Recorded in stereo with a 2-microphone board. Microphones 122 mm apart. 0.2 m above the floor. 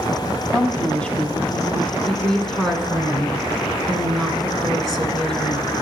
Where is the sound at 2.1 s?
5° left (ahead or behind), 2 m.